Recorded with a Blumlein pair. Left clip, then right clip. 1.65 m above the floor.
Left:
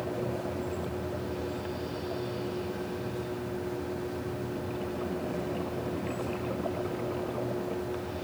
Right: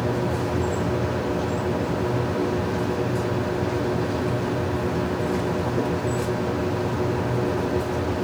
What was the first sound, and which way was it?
A machine running, 55° right.